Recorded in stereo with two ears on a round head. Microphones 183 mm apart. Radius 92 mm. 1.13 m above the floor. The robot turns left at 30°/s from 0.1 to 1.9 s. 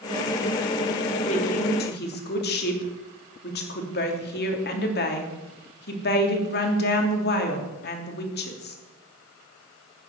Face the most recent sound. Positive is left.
turn(degrees=50)  # may be behind; listen again after turning